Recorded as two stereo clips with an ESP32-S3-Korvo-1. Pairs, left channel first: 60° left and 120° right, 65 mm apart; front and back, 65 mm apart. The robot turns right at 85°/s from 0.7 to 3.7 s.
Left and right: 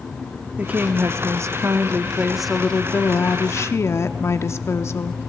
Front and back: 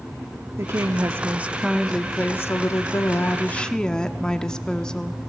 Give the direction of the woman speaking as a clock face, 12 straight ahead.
6 o'clock.